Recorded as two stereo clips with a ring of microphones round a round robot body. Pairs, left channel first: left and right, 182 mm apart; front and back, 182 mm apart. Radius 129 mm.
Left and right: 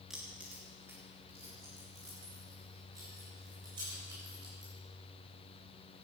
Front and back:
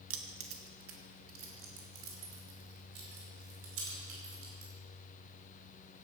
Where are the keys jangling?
Straight behind, 1.2 m; by 4.7 s 165° right, 4.5 m.